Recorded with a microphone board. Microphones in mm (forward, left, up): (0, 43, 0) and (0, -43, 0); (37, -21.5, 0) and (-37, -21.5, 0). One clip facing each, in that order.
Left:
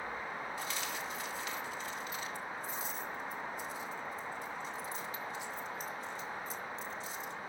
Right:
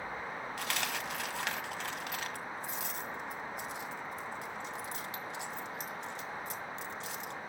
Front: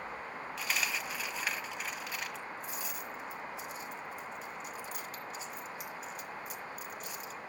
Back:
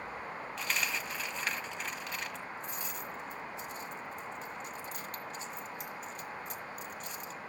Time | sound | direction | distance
0.6 | a dropped coin | 90° right | 1.4 m